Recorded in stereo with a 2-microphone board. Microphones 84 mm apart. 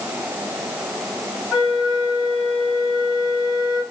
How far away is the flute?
About 1.7 m.